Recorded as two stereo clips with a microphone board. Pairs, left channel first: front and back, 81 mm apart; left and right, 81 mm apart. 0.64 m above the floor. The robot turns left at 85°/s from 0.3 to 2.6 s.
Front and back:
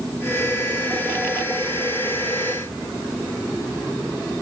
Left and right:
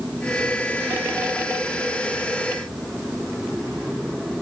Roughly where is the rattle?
No rattle in this recording.